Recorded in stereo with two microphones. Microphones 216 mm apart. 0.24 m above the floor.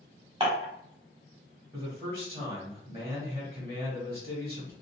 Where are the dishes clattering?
25° right (ahead or behind), 1.0 m.